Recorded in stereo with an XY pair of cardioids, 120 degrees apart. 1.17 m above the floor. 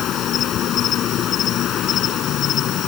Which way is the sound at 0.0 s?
60° left.